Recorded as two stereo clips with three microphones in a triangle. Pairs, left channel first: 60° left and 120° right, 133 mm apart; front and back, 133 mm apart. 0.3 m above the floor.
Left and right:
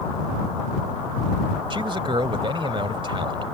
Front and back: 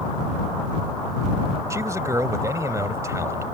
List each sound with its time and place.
1.7 s a man speaking: 130° right